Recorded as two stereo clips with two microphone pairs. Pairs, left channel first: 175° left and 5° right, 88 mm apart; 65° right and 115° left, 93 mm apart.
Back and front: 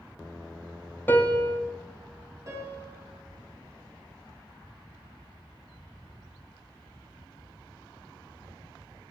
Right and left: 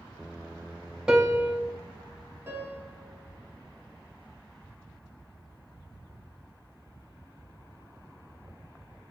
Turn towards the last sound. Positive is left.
turn(degrees=50)